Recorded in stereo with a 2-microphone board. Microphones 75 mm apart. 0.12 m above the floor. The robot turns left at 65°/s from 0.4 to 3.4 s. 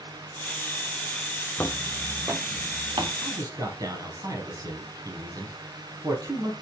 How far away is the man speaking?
About 3 m.